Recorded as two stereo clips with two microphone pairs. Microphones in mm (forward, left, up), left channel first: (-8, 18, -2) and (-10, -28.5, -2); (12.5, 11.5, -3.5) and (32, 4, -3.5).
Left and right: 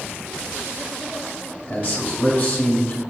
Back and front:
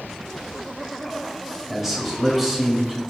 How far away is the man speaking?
About 1.4 m.